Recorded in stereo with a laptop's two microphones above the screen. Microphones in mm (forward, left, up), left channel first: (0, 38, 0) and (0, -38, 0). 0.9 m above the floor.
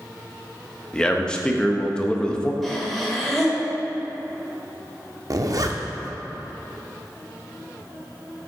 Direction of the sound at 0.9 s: 10° left (ahead or behind).